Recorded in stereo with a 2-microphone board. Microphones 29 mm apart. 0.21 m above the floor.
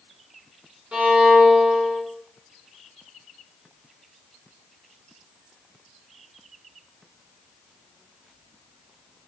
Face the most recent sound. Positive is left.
turn(degrees=-50)  # may be behind; listen again after turning